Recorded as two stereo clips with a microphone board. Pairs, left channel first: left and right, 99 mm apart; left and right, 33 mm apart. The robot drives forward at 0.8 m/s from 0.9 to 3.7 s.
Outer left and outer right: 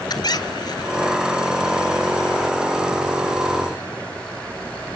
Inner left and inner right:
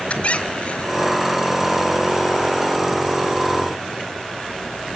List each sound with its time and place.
0.1 s a squeak: 45° left (ahead or behind), 0.9 m